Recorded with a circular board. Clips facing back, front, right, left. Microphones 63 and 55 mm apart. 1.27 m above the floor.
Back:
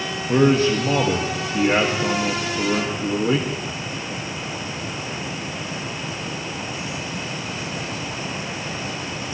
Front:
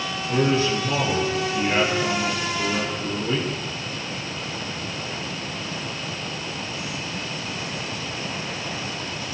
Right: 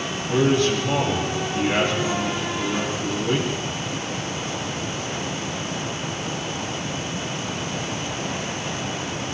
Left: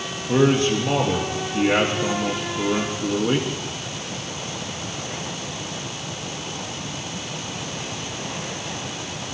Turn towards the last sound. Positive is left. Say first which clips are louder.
# back 5 dB, left 1 dB
turn(degrees=145)